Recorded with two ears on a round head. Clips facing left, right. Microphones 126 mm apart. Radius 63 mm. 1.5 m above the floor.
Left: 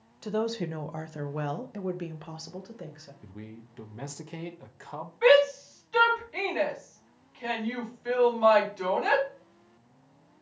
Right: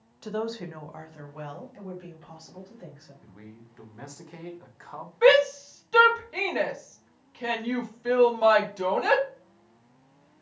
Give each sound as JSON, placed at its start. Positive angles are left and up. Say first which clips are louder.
{"t": 0.2, "sound": "a woman speaking", "louder": "left 2 dB", "side_deg": 5, "distance_m": 0.5}
{"t": 3.2, "sound": "a man speaking", "louder": "left 5 dB", "side_deg": 25, "distance_m": 0.8}
{"t": 5.2, "sound": "a shout", "louder": "right 1 dB", "side_deg": -55, "distance_m": 2.0}